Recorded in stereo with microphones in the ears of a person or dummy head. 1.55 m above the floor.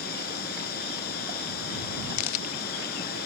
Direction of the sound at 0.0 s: 45° left (ahead or behind).